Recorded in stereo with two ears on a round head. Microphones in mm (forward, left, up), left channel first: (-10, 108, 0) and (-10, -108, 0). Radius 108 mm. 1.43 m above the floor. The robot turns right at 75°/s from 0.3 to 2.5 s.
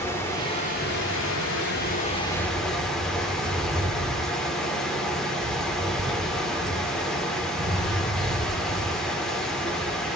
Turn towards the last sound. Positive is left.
turn(degrees=175)